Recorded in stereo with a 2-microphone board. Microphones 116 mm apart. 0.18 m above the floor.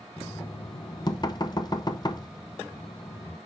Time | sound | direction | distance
0.2 | knocking | 35° left (ahead or behind) | 0.8 m